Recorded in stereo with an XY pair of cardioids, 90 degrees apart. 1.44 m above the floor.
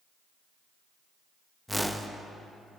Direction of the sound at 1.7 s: Straight ahead.